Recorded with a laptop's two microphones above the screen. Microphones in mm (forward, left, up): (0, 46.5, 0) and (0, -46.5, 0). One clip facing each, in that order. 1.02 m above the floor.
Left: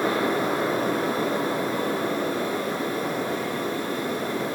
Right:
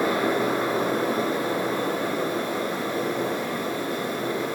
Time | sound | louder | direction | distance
0.0 | a fan | right 1 dB | 35° left (ahead or behind) | 2.5 m